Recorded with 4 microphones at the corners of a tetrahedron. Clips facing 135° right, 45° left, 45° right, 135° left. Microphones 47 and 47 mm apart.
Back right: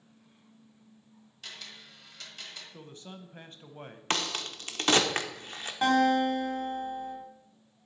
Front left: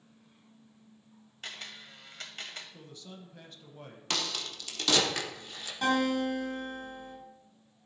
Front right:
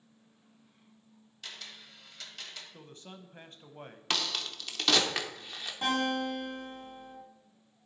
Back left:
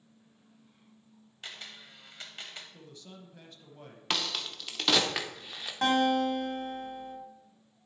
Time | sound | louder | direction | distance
1.4 | a camera shutter | front left 3 dB, back left 1 dB | 80° left | 1.2 m
2.7 | a man speaking | back right 2 dB, front right 1 dB | 90° right | 0.8 m
4.1 | a crack | back right 3 dB, even | 145° right | 0.8 m
5.8 | a guitar | back right 4 dB, back left 5 dB | 170° left | 3.5 m